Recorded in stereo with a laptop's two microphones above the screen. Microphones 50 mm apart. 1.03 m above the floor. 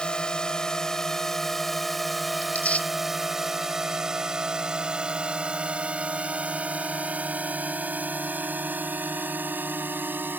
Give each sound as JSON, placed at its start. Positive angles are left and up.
{"t": 0.0, "sound": "a drone", "side_deg": 20}
{"t": 2.4, "sound": "tearing paper", "side_deg": 30}